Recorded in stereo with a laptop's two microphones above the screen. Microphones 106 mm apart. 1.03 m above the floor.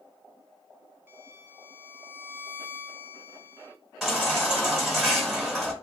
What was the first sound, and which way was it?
A violin, 20° right (ahead or behind).